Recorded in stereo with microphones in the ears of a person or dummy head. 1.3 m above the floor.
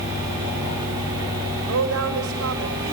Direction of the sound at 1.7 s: 70° right (ahead or behind).